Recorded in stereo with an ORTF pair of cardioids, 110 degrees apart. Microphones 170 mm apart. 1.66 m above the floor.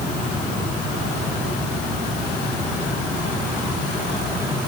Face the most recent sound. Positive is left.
No sound to turn to.